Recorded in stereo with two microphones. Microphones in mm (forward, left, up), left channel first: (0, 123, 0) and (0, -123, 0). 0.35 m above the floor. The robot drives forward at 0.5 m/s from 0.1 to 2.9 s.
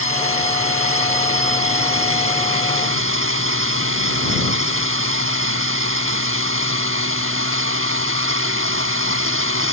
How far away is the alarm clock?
No alarm clock in this recording.